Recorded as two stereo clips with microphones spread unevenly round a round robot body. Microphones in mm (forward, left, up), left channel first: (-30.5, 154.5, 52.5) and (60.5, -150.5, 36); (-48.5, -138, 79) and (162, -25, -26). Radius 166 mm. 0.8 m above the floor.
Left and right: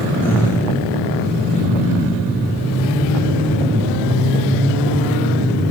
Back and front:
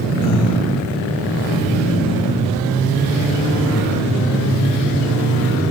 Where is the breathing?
170° right, 0.7 m.